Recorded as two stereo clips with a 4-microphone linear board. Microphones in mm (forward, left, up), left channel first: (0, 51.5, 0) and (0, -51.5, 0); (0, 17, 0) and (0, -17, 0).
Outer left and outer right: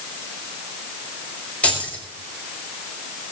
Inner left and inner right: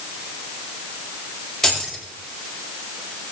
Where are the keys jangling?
10° left (ahead or behind), 5.5 m.